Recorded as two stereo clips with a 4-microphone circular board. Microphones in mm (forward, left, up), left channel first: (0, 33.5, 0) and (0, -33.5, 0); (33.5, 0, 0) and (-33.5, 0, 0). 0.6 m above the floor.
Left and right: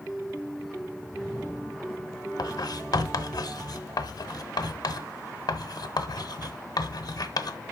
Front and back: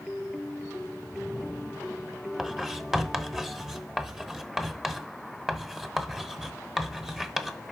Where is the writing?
95° left, 0.9 m.